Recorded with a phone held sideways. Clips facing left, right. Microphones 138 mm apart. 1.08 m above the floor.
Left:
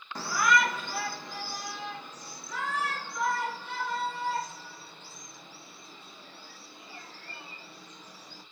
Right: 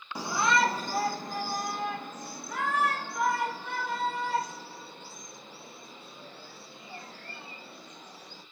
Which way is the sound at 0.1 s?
10° right (ahead or behind).